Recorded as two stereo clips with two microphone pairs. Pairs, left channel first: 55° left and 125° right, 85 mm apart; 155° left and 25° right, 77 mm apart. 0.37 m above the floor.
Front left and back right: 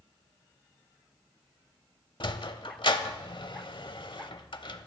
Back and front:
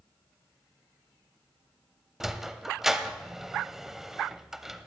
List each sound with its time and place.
2.2 s a sliding door: 60° left, 0.7 m